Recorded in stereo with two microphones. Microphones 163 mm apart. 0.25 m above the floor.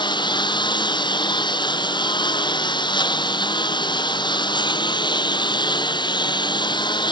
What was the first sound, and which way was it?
A lawn mower, 25° left (ahead or behind).